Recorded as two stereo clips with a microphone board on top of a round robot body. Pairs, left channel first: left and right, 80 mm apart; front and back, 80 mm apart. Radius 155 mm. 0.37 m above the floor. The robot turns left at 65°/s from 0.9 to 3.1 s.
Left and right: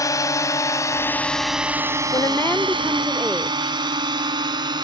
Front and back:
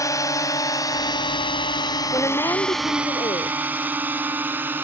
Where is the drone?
45° left; by 4.8 s 115° right.